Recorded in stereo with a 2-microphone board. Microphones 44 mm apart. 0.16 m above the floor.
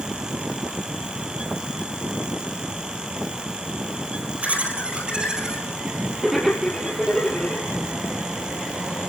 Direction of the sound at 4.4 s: 30° right (ahead or behind).